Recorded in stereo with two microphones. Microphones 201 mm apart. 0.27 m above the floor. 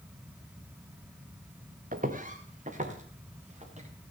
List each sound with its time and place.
1.9 s footsteps: 40° right (ahead or behind), 1.4 m; by 3.9 s 30° right (ahead or behind), 3 m